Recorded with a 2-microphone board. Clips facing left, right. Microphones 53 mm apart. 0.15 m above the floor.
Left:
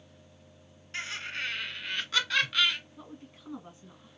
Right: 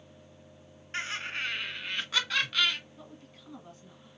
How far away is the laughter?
About 2 m.